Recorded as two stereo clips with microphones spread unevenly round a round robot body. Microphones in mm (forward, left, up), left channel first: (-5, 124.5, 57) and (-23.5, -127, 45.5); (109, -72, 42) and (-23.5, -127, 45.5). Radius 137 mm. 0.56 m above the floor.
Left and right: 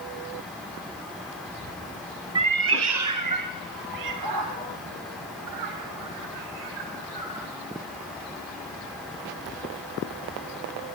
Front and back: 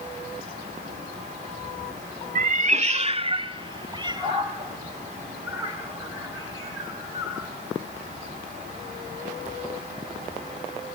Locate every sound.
2.4 s a cat meowing: 170° right, 0.6 m; by 7.5 s 90° right, 7 m